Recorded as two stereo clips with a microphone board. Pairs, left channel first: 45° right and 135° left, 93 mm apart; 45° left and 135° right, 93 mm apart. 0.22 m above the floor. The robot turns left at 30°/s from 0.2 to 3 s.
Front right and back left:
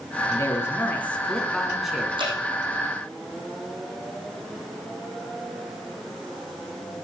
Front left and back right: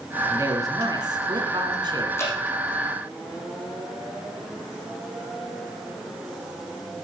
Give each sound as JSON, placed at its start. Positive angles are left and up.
{"t": 0.3, "sound": "a man speaking", "azimuth_deg": -95, "distance_m": 2.5}
{"t": 2.2, "sound": "dripping", "azimuth_deg": 105, "distance_m": 5.5}